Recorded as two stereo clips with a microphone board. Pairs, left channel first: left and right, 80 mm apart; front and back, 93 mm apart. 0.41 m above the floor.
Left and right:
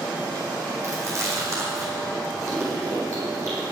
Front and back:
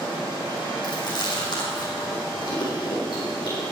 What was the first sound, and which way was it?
Chewing, 40° right.